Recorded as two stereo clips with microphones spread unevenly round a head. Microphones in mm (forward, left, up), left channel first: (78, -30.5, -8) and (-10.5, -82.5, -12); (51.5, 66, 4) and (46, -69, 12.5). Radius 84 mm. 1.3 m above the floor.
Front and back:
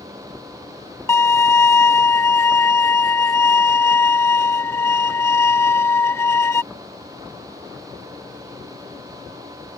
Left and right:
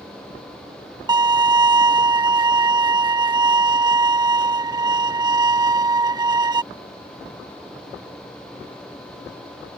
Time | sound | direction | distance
1.1 | a violin | 35° right | ?